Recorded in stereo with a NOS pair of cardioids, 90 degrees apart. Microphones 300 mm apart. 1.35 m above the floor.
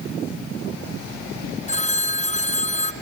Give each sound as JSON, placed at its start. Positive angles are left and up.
{"t": 1.7, "sound": "a phone ringing", "azimuth_deg": 25, "distance_m": 1.1}